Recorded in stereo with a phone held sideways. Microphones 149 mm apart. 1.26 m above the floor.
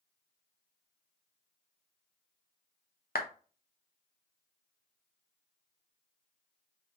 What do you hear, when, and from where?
3.1 s a clap: 85° left, 0.7 m